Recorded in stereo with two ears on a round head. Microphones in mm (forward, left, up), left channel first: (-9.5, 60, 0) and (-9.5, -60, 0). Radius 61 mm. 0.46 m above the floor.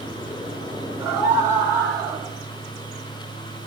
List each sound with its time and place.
1.0 s a scream: 20° right (ahead or behind), 5 m; by 2.3 s 30° right (ahead or behind), 3 m